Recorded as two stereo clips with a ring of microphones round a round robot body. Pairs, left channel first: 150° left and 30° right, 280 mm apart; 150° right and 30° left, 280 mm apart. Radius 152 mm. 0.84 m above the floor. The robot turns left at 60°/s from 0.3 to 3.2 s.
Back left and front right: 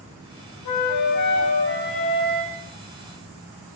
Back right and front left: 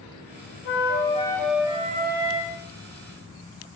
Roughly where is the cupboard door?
I don't hear a cupboard door.